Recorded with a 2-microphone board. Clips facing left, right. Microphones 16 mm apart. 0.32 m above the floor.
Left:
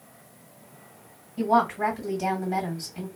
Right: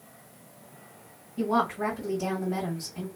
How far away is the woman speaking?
About 2.5 m.